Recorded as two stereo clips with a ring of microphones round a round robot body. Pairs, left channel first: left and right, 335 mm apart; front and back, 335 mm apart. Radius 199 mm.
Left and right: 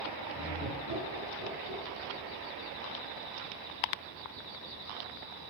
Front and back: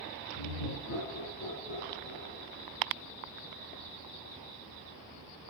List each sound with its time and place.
0.3 s laughter: 45° right, 7 m; by 2.4 s 55° right, 8 m